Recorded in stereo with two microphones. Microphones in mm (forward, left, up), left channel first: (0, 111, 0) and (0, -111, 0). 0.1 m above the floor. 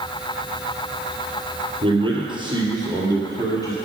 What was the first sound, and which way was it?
A man speaking, 25° right (ahead or behind).